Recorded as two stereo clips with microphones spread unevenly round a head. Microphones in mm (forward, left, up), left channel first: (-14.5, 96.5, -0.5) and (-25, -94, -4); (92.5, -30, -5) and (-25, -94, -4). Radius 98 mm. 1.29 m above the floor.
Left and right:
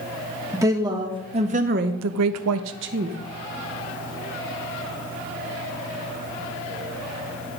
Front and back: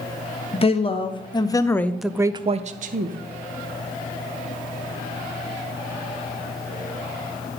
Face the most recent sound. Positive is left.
turn(degrees=-135)